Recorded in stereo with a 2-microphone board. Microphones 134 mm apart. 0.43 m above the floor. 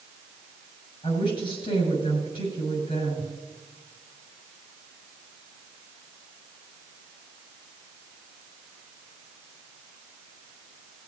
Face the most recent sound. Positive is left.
turn(degrees=40)  # may be behind; listen again after turning